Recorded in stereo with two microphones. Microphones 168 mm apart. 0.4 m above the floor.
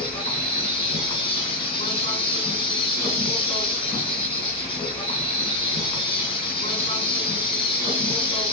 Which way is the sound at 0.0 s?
30° left (ahead or behind).